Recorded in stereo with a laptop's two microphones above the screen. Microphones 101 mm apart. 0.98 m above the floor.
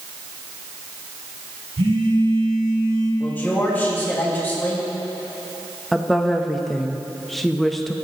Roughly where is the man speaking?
Centre.